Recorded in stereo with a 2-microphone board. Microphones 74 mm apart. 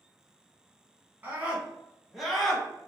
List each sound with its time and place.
1.2 s a scream: 25° right (ahead or behind), 1.3 m; by 2.7 s 10° left (ahead or behind), 1.1 m